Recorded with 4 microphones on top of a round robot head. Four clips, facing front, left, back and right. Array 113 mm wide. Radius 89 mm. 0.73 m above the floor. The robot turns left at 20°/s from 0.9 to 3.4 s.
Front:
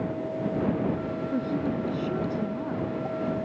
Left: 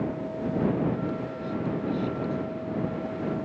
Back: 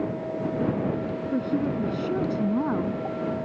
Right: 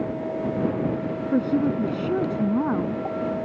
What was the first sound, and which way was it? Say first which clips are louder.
A woman speaking: right 9 dB, back 3 dB; 90° right.